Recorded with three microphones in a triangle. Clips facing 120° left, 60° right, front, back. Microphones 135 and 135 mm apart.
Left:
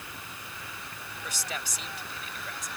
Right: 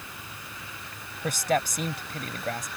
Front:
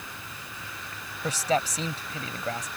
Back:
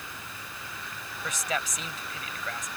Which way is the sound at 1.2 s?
50° right.